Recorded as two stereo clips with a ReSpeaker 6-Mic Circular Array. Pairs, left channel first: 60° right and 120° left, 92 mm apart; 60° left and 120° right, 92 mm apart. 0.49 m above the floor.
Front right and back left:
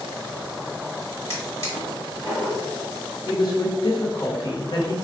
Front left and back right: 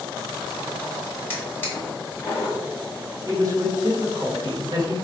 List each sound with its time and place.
1.3 s a drawer: 5° right, 2.0 m
3.3 s a woman speaking: 85° right, 1.1 m